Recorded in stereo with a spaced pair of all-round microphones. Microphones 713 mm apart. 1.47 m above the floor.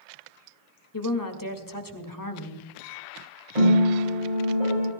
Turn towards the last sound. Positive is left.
turn(degrees=-65)  # may be behind; listen again after turning